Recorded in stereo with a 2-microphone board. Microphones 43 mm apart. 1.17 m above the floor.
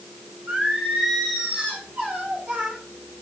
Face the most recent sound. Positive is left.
turn(degrees=-35)  # may be behind; listen again after turning